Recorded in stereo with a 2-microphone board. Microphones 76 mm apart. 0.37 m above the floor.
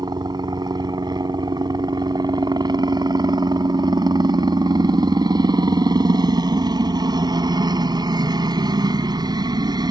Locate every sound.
0.0 s a helicopter: 65° right (ahead or behind)